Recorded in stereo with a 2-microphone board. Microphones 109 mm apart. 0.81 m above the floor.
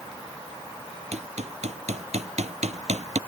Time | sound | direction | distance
1.1 | hammering | 80° right | ?